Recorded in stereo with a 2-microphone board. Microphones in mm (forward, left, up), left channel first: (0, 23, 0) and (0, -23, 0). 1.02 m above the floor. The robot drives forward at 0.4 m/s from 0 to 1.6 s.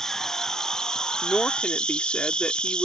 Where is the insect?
15° left (ahead or behind); by 2.9 s 20° left (ahead or behind).